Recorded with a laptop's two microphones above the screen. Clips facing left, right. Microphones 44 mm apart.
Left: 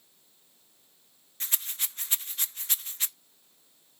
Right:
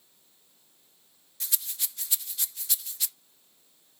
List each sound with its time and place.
1.4 s a rattle: 40° left (ahead or behind), 0.6 m